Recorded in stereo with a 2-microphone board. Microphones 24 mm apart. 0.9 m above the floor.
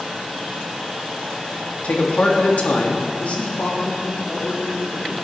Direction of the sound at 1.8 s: 65° left (ahead or behind).